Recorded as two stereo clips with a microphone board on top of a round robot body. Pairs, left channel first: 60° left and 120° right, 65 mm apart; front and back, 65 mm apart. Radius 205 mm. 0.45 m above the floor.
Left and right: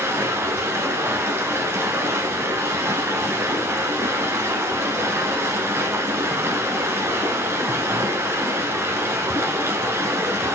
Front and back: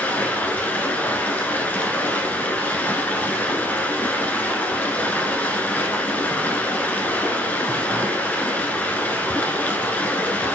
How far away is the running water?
About 1.1 m.